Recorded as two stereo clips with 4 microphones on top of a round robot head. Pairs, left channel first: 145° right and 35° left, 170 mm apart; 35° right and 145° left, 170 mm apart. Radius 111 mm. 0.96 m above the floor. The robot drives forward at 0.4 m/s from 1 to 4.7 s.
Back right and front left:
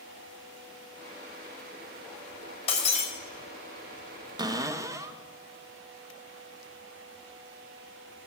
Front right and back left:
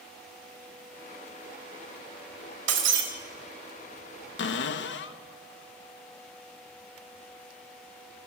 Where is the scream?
No scream in this recording.